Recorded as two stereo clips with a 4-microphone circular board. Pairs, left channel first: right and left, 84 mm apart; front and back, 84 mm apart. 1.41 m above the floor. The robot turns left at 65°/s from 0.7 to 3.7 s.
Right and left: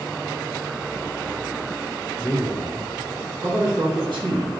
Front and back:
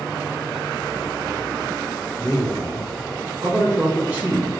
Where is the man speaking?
155° right, 1.3 m; by 4.5 s 105° left, 1.3 m.